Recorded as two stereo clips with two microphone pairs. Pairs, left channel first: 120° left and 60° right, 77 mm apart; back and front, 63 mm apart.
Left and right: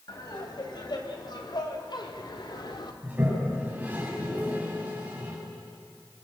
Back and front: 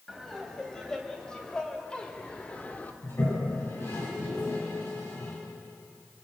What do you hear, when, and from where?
0.1 s laughter: 95° left, 5.5 m; by 2.9 s 120° left, 2.5 m
3.0 s a toilet flushing: 130° right, 6.5 m